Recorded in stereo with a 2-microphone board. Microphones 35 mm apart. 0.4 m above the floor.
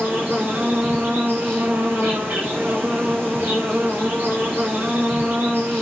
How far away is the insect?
About 10 m.